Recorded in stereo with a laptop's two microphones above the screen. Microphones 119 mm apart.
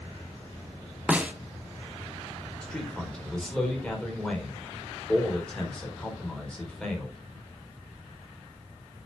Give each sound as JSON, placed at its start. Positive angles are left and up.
{"t": 1.1, "sound": "a snare drum", "side_deg": -10, "distance_m": 0.9}
{"t": 2.6, "sound": "a man speaking", "side_deg": 5, "distance_m": 4.0}